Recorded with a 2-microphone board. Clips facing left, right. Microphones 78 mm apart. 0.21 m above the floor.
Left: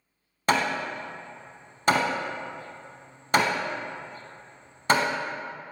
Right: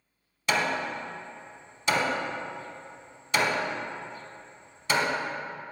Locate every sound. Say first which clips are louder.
0.5 s hammering: left 2 dB; 55° left (ahead or behind), 0.6 m